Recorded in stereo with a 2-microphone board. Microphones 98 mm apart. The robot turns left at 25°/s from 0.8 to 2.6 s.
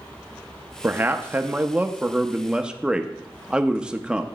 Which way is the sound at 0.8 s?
20° right (ahead or behind).